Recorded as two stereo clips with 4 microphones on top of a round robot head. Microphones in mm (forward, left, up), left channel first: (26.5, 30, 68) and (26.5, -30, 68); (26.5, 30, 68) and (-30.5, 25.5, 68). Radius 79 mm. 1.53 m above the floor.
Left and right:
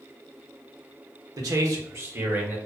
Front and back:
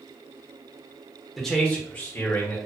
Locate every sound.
1.4 s a man speaking: 85° right, 0.8 m; by 2.6 s 35° right, 1.3 m